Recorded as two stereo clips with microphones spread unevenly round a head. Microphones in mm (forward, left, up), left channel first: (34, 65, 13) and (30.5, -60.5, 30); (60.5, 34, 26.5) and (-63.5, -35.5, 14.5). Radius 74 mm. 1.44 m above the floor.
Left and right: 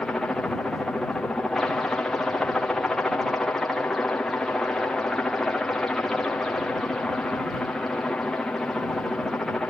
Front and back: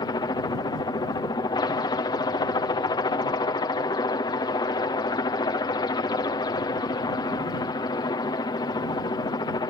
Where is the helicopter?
25° left.